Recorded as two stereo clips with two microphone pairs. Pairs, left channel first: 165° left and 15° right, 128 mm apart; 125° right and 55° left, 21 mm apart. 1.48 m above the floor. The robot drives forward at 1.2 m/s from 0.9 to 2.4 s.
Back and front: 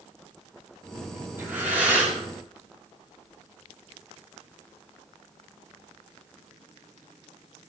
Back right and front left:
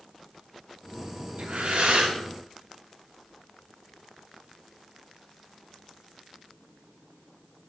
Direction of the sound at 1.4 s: 60° left.